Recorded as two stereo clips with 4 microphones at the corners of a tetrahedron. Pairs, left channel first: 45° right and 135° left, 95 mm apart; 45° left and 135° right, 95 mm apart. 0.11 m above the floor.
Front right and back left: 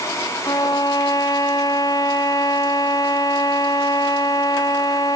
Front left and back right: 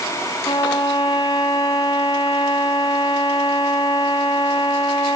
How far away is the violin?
About 2.5 m.